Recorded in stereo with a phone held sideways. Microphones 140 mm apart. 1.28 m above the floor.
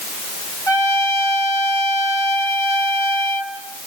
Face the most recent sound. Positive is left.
turn(degrees=20)  # may be behind; listen again after turning